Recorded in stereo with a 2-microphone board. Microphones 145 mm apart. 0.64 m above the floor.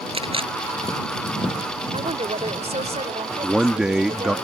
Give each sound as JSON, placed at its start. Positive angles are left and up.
{"t": 0.1, "sound": "a camera shutter", "side_deg": -40}
{"t": 1.9, "sound": "a woman speaking", "side_deg": -50}
{"t": 3.4, "sound": "a man speaking", "side_deg": -5}